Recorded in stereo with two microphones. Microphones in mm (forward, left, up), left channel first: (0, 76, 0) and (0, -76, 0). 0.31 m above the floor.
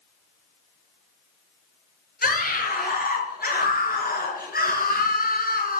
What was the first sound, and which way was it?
A scream, 75° left (ahead or behind).